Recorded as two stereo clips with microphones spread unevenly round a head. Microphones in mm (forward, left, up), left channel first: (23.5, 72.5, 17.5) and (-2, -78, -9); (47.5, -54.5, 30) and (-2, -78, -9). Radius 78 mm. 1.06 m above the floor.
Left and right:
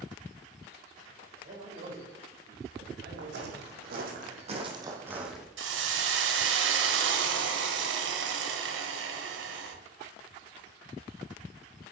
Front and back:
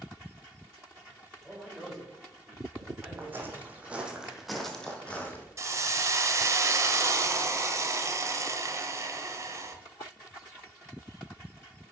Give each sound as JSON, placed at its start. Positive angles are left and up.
{"t": 1.4, "sound": "a man speaking", "azimuth_deg": -60, "distance_m": 4.0}
{"t": 3.2, "sound": "footsteps", "azimuth_deg": -90, "distance_m": 3.0}
{"t": 5.6, "sound": "a hiss", "azimuth_deg": -105, "distance_m": 1.4}